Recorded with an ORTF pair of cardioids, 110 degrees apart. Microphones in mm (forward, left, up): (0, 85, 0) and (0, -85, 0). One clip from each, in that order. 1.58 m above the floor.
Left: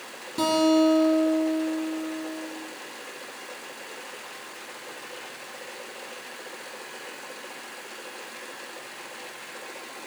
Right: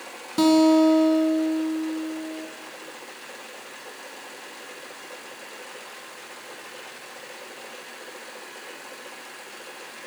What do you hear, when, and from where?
0.4 s a guitar: 30° right, 0.9 m